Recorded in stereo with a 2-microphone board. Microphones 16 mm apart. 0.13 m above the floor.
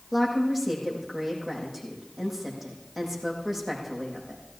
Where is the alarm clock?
No alarm clock in this recording.